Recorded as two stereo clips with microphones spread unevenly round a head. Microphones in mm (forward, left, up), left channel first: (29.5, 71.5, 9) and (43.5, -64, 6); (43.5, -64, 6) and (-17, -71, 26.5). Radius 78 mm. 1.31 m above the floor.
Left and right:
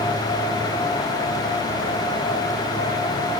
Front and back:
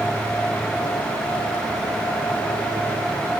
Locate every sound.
Only background noise.